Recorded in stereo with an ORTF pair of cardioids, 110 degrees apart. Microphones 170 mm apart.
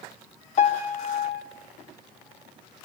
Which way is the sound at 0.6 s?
45° left.